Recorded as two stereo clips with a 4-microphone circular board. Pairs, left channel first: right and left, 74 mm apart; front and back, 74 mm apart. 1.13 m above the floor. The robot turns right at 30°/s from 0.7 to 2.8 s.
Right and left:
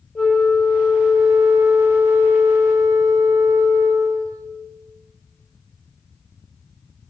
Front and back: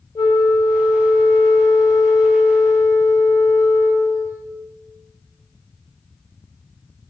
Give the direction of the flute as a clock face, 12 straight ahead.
12 o'clock.